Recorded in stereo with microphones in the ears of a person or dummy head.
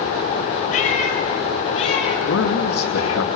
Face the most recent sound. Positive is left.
turn(degrees=80)